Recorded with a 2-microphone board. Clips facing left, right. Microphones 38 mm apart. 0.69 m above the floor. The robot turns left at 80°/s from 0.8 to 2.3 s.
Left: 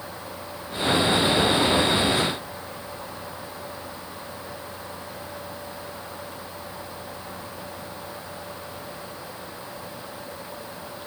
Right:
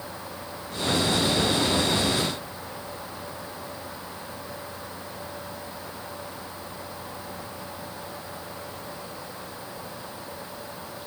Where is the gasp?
I don't hear a gasp.